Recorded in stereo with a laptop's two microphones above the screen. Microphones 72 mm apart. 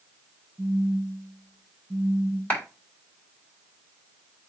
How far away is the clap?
About 3 m.